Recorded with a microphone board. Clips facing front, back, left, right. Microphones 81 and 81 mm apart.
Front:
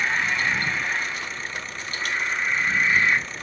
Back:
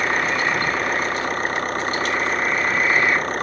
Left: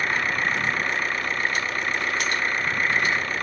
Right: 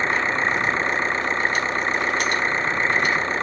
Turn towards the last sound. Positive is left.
turn(degrees=-150)